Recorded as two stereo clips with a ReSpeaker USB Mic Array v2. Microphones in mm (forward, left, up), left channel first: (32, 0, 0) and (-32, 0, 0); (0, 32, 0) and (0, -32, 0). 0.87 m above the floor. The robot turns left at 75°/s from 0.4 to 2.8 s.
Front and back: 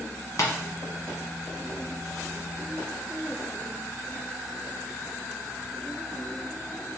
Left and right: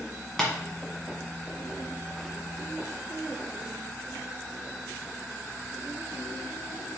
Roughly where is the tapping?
Ahead.